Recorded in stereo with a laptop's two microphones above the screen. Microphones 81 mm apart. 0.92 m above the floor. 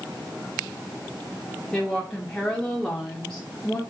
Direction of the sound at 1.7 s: 10° left (ahead or behind).